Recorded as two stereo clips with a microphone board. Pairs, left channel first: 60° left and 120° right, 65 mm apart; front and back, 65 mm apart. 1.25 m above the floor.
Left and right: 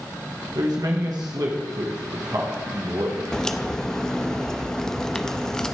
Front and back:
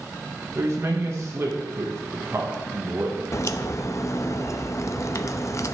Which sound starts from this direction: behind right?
A man speaking, at 0.6 s.